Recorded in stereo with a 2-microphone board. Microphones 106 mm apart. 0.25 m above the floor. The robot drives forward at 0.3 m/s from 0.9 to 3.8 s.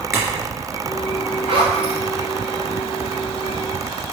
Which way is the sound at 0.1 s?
25° right (ahead or behind).